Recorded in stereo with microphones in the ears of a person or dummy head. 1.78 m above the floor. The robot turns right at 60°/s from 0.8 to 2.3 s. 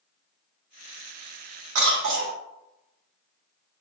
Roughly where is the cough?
Right.